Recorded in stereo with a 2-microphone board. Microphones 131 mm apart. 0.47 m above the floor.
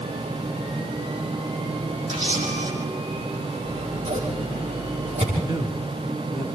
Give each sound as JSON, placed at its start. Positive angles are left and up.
{"t": 2.1, "sound": "a camera shutter", "side_deg": -70, "distance_m": 7.5}
{"t": 3.6, "sound": "scissors", "side_deg": -70, "distance_m": 9.5}
{"t": 5.4, "sound": "a man speaking", "side_deg": -35, "distance_m": 4.0}